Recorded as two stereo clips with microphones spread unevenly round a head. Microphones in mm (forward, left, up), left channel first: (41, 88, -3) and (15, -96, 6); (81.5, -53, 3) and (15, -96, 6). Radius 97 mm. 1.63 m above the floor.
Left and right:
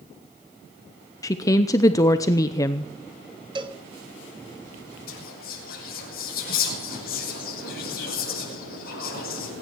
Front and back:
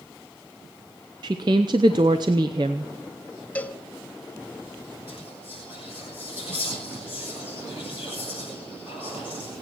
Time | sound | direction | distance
1.2 | a woman speaking | 155° left | 0.6 m
3.5 | a cowbell | 40° right | 1.4 m
5.1 | whispering | 135° left | 7 m